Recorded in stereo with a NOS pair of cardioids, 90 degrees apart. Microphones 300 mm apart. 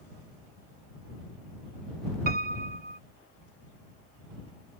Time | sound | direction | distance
2.3 | a piano | 30° right | ?